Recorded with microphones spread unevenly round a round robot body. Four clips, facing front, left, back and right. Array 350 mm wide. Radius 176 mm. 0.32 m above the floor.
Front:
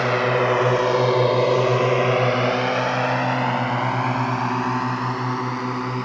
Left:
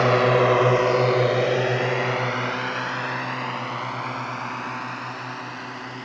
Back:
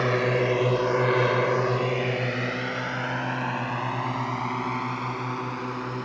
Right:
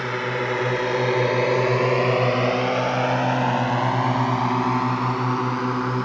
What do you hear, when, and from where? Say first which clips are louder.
0.0 s a drone: left 8 dB, front 4 dB; 90° left; by 6.1 s 50° right